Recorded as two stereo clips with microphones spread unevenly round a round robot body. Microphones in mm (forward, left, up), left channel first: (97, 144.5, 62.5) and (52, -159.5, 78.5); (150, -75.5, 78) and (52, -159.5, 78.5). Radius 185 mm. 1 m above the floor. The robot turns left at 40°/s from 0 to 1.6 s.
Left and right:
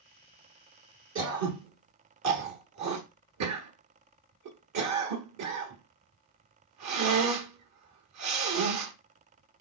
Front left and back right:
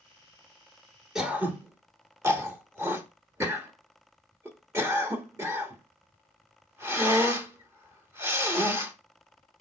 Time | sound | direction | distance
1.1 | throat clearing | 55° right | 1.3 m